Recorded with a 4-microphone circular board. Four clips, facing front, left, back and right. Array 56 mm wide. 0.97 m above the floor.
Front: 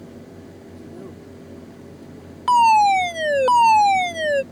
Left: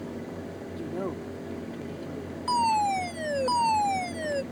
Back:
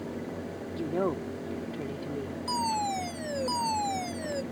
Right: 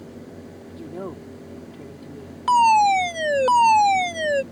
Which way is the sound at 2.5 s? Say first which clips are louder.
Right 9 dB, front 17 dB; 35° right.